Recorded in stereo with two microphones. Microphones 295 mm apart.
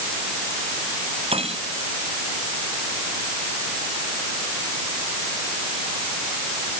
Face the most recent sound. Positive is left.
turn(degrees=-20)  # may be behind; listen again after turning